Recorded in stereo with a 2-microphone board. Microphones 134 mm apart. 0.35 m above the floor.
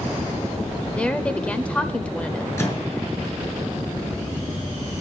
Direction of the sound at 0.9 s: 10° left (ahead or behind).